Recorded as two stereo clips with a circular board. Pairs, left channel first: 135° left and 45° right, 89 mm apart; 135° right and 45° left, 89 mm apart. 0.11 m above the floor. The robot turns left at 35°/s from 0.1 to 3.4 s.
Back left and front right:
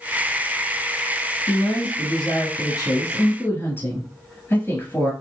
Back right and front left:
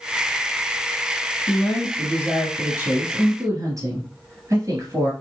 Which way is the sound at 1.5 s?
150° left.